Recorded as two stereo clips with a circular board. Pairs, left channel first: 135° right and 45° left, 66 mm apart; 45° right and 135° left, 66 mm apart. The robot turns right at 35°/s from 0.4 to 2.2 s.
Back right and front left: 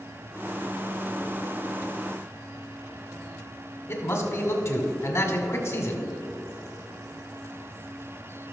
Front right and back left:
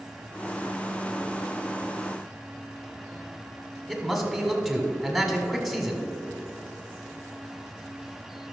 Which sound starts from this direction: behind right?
A man speaking, at 3.9 s.